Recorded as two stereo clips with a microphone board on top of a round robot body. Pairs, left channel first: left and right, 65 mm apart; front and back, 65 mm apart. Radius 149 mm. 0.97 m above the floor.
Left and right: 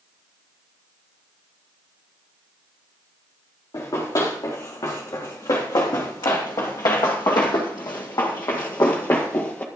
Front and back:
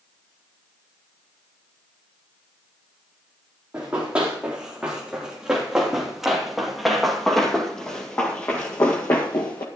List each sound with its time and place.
3.7 s running footsteps: 110° left, 4 m; by 9.7 s 35° left, 1.6 m